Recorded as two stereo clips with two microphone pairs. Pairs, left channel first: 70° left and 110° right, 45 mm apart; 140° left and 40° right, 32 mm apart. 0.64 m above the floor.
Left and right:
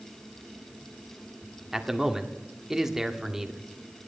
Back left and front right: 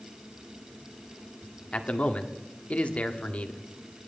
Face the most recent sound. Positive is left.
turn(degrees=170)